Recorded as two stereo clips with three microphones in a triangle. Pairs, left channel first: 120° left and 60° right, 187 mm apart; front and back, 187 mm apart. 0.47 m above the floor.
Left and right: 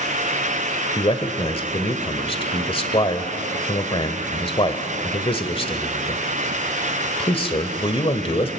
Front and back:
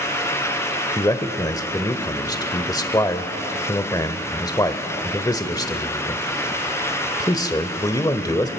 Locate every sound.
1.0 s a man speaking: 65° left, 1.4 m